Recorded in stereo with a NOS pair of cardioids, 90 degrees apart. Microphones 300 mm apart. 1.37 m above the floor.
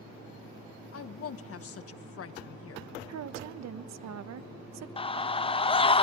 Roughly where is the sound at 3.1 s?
Ahead right.